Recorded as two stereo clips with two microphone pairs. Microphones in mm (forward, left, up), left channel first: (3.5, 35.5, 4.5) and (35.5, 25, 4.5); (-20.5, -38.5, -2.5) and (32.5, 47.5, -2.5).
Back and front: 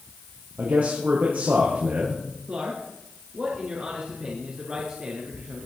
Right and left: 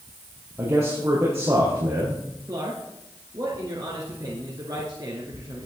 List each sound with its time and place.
0.6 s a man speaking: straight ahead, 4 m
2.5 s a man speaking: 20° left, 2.5 m